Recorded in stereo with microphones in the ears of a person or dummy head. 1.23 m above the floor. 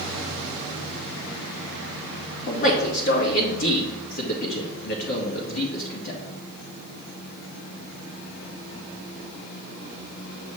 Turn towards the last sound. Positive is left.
turn(degrees=45)  # may be behind; listen again after turning